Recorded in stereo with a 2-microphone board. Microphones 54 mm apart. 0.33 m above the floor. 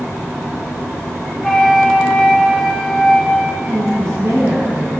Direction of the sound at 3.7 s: 60° right (ahead or behind).